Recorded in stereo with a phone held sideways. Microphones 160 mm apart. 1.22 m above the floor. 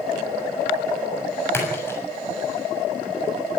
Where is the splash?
15° left (ahead or behind), 7 m.